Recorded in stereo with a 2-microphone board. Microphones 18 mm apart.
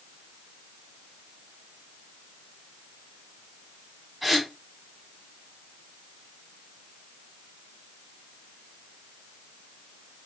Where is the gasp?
Centre (ahead or behind), 1.4 m.